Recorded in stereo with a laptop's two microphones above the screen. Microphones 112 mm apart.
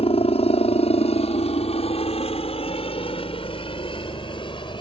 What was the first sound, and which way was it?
A helicopter, 60° left (ahead or behind).